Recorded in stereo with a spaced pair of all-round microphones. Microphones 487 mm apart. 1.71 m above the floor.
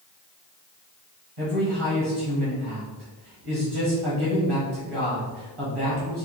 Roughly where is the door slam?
I don't hear a door slam.